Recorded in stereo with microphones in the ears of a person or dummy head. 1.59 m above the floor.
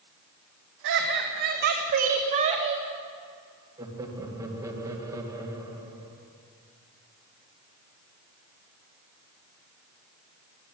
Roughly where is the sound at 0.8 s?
Right.